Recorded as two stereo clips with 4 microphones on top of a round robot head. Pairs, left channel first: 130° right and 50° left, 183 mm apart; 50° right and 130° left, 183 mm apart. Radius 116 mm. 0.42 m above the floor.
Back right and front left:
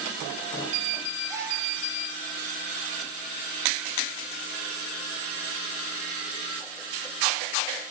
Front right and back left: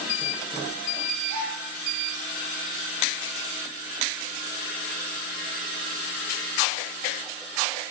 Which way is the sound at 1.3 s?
125° left.